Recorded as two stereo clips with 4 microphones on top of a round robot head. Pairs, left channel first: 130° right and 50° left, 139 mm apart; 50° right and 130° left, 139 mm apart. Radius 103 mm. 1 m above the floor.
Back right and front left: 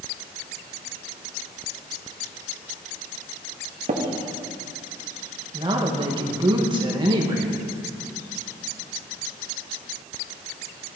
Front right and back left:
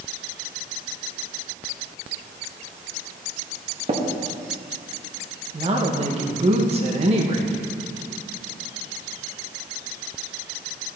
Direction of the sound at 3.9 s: 85° left.